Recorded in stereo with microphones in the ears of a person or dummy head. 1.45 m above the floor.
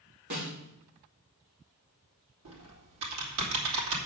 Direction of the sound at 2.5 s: 75° right (ahead or behind).